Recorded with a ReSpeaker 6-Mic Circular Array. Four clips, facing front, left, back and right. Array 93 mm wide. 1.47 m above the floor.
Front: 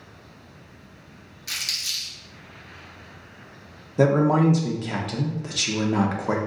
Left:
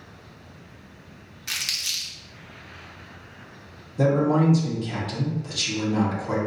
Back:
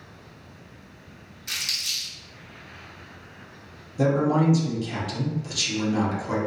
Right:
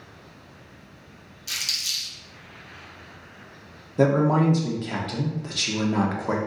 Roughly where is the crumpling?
Left.